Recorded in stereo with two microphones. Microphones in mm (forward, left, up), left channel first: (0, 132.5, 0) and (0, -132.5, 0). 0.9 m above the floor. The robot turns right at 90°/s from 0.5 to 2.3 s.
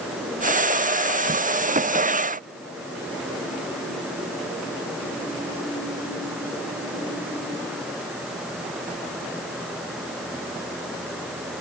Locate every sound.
Only background noise.